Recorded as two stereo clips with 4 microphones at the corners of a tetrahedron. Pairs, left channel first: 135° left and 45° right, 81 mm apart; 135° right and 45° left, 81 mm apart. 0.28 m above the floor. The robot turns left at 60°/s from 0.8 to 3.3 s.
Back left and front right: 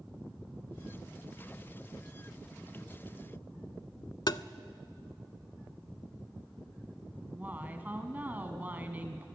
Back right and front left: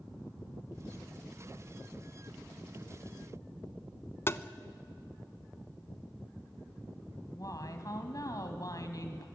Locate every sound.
4.3 s tapping: 165° left, 0.5 m
7.2 s a woman speaking: 110° right, 2.5 m